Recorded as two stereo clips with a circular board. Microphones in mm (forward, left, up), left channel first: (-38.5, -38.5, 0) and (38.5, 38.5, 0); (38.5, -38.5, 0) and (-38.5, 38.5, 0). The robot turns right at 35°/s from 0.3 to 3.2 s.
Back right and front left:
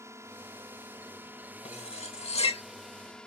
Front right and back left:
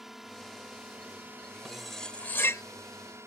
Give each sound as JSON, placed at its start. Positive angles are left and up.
{"t": 0.0, "sound": "a drone", "azimuth_deg": 50}
{"t": 1.6, "sound": "cutlery clinking", "azimuth_deg": -140}